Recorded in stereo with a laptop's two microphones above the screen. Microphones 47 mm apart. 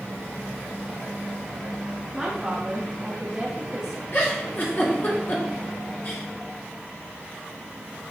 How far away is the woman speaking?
About 1.0 m.